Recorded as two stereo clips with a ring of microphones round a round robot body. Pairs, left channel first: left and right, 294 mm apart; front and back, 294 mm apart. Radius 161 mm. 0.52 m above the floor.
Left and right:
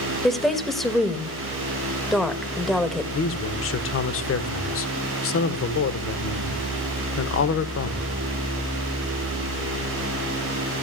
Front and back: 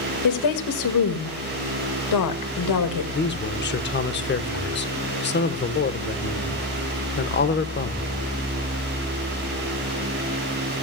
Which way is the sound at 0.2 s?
Straight ahead.